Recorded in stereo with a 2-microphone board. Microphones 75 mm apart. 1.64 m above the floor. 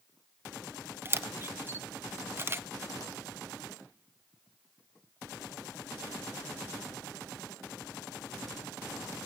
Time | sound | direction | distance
1.1 | a camera shutter | 30° right (ahead or behind) | 0.7 m